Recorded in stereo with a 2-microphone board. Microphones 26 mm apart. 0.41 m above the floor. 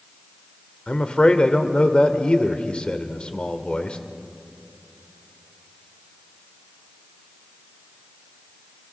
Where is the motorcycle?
I don't hear a motorcycle.